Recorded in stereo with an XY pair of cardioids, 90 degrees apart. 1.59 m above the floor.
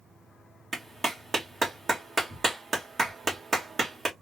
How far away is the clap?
About 1.7 m.